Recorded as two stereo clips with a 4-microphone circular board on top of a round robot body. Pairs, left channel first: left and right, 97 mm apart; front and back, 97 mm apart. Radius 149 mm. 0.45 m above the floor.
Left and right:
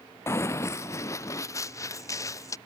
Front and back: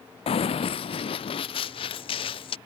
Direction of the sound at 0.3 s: 25° left.